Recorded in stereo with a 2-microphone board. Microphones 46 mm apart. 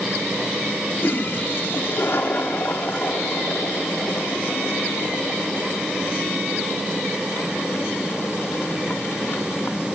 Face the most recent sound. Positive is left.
turn(degrees=55)  # may be behind; listen again after turning